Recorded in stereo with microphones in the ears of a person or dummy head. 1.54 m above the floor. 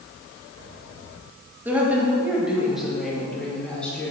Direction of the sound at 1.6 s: 20° right (ahead or behind).